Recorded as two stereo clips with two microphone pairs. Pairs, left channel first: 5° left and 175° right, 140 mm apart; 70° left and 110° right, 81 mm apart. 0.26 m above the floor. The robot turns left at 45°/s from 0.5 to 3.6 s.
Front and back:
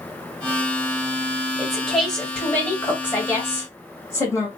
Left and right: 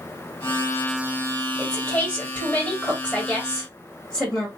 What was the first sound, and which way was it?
A woman speaking, 105° left.